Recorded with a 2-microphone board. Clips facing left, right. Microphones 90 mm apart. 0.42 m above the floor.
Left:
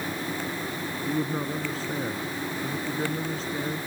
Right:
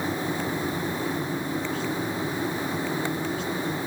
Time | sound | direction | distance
1.0 | a man speaking | 35° left (ahead or behind) | ?